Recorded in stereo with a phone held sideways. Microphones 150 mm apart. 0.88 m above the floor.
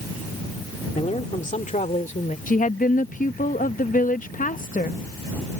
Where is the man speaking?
50° left (ahead or behind); by 2.4 s 60° left (ahead or behind).